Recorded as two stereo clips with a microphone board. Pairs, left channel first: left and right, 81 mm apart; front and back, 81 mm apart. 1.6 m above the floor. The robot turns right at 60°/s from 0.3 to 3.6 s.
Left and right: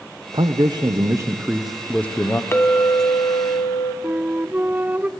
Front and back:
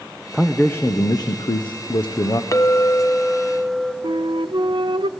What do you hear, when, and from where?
0.3 s a man speaking: 85° right, 0.9 m; by 2.4 s 40° left, 0.9 m
2.5 s a clink: 35° left, 0.8 m; by 3.9 s 100° left, 0.8 m
4.0 s a flute: 160° right, 0.5 m